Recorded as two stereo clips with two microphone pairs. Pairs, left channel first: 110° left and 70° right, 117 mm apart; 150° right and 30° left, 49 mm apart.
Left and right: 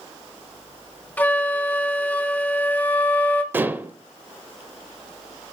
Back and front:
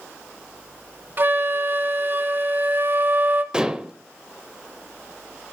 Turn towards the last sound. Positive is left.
turn(degrees=-20)